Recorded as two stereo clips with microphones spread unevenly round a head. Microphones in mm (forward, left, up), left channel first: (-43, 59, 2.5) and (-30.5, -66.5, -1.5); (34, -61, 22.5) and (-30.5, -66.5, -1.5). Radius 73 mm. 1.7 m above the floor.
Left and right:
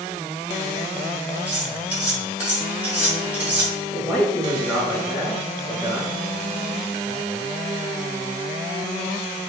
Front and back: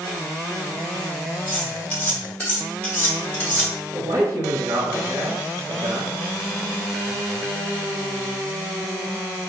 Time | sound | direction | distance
1.5 | cutlery clinking | 10° right | 1.2 m
3.9 | a man speaking | 175° left | 1.1 m